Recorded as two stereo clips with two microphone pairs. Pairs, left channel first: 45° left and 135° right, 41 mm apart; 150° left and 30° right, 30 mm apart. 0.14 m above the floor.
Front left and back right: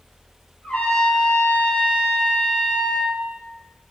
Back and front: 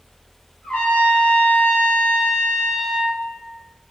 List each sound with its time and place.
0.6 s a trumpet: 95° left, 3 m